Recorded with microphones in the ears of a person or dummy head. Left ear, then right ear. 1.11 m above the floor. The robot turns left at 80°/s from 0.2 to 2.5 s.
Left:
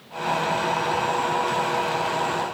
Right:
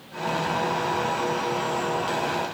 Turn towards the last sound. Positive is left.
No sound to turn to.